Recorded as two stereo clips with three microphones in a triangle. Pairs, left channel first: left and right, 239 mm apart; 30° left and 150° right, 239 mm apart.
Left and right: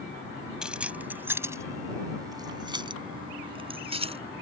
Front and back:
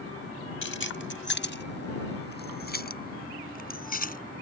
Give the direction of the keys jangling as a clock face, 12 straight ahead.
12 o'clock.